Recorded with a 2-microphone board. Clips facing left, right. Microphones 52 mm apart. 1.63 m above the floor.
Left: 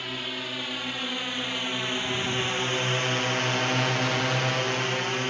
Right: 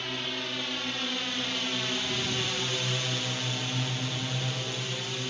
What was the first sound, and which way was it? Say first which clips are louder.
A drone: left 1 dB; 5° left (ahead or behind).